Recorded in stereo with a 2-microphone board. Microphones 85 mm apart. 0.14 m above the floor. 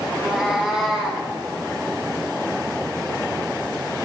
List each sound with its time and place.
0.1 s a cat meowing: 10° right (ahead or behind), 4 m; by 1.2 s 5° right (ahead or behind), 3 m